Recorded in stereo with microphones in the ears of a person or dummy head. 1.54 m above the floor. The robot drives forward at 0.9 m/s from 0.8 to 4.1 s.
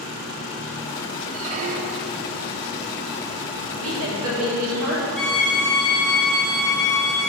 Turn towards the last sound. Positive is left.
turn(degrees=5)  # may be behind; listen again after turning